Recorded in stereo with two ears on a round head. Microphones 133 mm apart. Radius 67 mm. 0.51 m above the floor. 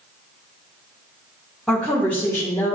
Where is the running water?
I don't hear running water.